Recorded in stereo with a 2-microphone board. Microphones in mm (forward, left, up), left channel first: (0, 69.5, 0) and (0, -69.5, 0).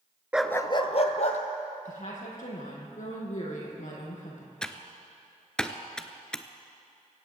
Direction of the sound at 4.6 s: 5° left (ahead or behind).